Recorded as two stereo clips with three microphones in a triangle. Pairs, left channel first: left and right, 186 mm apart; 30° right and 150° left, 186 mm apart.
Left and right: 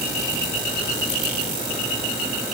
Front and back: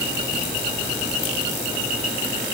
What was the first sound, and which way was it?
Only background noise.